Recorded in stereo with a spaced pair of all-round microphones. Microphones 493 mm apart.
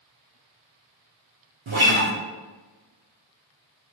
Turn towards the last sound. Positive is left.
turn(degrees=-70)  # may be behind; listen again after turning